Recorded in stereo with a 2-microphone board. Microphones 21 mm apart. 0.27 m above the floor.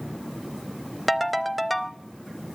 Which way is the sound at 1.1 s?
Centre (ahead or behind).